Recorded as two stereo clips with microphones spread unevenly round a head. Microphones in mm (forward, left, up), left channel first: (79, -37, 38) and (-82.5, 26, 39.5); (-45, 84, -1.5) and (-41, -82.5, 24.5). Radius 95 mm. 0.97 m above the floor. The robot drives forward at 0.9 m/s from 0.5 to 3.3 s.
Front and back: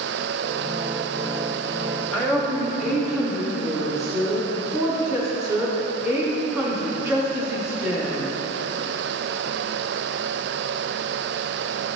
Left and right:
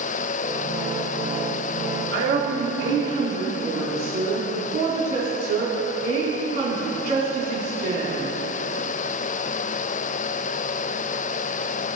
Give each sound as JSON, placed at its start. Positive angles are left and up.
{"t": 2.1, "sound": "a woman speaking", "azimuth_deg": -110, "distance_m": 2.5}